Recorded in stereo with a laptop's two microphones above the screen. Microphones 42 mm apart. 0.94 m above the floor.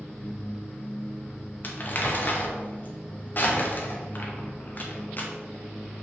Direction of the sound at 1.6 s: 45° left (ahead or behind).